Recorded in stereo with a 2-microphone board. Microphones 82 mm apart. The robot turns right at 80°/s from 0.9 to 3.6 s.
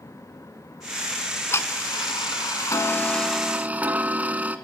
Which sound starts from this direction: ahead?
Ticking, at 1.1 s.